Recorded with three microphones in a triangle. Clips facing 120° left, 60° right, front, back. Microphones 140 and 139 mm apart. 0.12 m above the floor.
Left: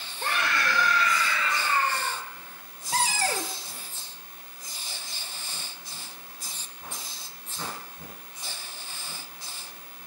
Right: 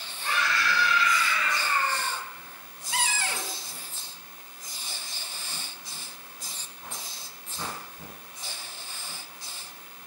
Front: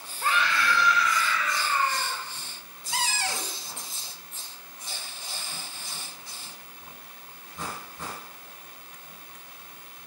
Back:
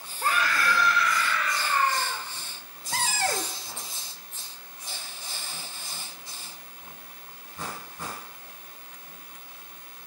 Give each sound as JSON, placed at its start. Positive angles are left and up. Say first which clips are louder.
{"t": 0.2, "sound": "a scream", "louder": "even, even", "azimuth_deg": 135, "distance_m": 2.5}
{"t": 2.9, "sound": "a cupboard door", "louder": "left 4 dB, back 3 dB", "azimuth_deg": 155, "distance_m": 0.8}